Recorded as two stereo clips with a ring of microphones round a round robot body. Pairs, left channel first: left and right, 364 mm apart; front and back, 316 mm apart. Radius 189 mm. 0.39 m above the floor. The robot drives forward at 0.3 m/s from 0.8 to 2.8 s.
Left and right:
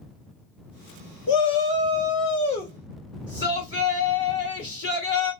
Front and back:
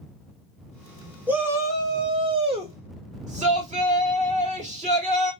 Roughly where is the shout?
Left.